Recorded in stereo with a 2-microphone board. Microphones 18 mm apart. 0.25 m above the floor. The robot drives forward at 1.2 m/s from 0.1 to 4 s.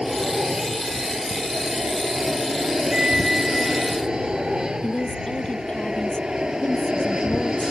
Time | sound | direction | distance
0.0 | an aircraft | 40° right (ahead or behind) | ?
2.9 | a flute | 50° right (ahead or behind) | ?
4.8 | a woman speaking | 80° left | ?